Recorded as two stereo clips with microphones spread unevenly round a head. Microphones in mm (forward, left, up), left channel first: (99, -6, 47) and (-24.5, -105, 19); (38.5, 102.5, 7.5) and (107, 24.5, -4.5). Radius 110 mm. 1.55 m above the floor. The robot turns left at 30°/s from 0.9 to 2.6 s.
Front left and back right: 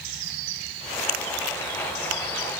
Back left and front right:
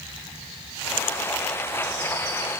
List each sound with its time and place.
Only background noise.